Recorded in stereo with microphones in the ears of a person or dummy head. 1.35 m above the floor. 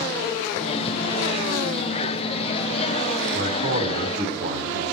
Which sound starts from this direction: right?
A man speaking, at 3.3 s.